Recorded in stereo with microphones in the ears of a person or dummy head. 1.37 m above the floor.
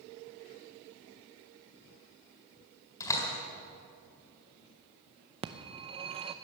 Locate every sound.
3.0 s a door slam: 20° left (ahead or behind), 4 m
5.4 s a phone ringing: 30° right (ahead or behind), 0.7 m